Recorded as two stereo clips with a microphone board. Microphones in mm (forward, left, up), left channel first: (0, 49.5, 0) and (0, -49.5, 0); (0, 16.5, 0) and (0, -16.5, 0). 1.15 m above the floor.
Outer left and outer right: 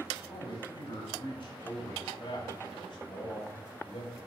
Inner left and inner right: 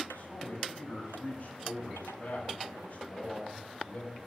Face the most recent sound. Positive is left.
turn(degrees=70)  # may be behind; listen again after turning